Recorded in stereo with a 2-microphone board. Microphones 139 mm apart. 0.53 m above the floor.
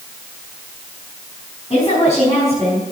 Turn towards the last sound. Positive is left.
turn(degrees=25)  # may be behind; listen again after turning